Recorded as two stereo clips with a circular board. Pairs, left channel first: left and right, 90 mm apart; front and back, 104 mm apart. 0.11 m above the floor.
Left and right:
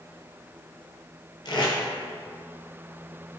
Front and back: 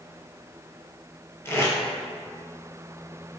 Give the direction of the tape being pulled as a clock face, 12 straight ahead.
10 o'clock.